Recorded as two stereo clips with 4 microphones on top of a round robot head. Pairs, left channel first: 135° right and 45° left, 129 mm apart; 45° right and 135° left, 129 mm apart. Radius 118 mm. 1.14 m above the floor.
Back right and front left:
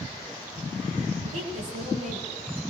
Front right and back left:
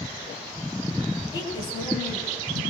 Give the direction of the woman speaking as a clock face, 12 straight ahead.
11 o'clock.